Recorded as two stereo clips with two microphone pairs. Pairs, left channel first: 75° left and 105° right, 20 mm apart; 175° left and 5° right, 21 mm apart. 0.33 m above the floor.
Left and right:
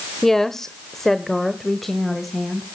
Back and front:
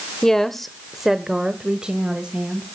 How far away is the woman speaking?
About 1.1 m.